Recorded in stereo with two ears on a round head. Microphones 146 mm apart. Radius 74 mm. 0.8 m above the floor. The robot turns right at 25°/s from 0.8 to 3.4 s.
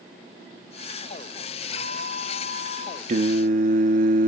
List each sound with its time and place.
1.8 s a bell: 75° right, 4 m; by 3.0 s 45° right, 4 m
3.1 s singing: 45° right (ahead or behind), 0.6 m; by 4.3 s 50° right (ahead or behind), 0.6 m